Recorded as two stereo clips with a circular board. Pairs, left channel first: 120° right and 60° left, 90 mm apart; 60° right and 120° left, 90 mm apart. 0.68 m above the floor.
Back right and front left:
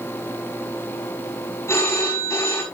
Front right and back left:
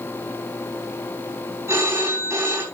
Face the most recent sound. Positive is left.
turn(degrees=180)